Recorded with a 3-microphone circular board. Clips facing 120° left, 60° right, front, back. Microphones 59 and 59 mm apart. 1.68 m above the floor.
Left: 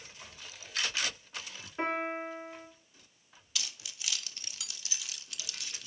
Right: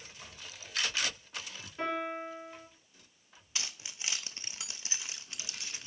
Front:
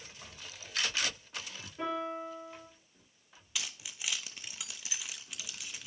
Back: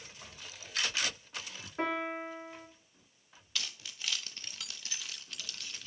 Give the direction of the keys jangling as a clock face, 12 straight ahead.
2 o'clock.